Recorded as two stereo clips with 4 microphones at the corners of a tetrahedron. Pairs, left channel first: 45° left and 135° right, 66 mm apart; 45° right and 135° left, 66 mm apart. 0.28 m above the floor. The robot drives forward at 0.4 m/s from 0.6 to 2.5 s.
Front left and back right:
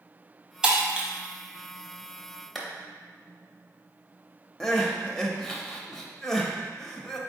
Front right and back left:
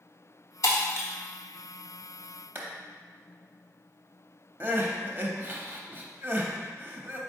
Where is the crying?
120° left, 0.6 m.